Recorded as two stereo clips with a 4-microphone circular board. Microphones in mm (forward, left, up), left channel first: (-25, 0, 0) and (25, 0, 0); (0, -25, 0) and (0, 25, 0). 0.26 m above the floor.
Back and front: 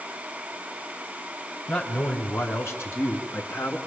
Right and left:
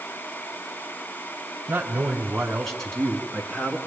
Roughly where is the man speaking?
Behind left.